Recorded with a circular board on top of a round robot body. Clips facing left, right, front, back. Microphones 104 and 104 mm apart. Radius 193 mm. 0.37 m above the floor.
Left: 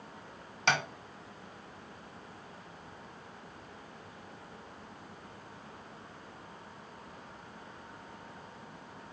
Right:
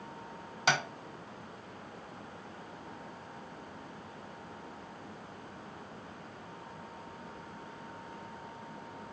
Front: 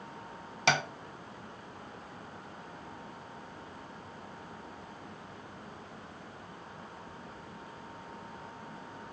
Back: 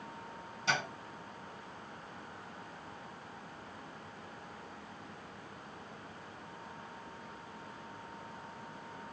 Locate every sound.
0.7 s tapping: 10° right, 0.7 m